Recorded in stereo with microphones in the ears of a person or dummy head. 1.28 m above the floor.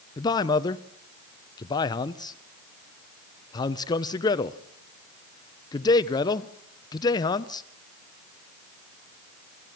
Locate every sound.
0.2 s a man speaking: 25° left (ahead or behind), 0.9 m